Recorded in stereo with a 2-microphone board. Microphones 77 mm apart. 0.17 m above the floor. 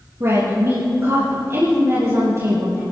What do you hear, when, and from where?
0.2 s a woman speaking: 35° right (ahead or behind), 5 m